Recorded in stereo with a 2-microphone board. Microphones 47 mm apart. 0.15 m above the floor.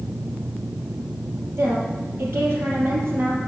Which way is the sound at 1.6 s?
55° right (ahead or behind).